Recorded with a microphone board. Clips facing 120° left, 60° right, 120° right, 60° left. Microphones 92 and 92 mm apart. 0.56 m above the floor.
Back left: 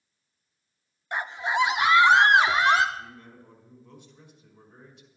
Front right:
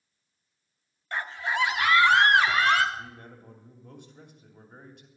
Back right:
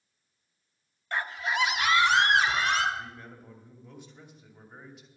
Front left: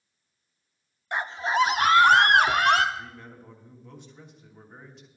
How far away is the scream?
About 0.7 m.